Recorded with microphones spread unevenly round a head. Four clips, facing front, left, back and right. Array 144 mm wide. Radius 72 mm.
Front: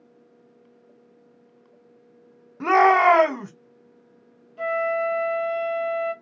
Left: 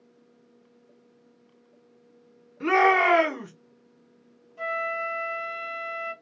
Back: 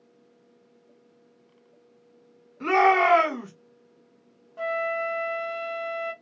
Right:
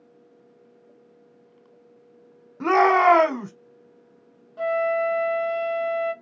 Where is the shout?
45° right, 1.1 m.